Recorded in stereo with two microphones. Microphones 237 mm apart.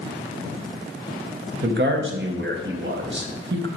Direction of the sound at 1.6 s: 50° right (ahead or behind).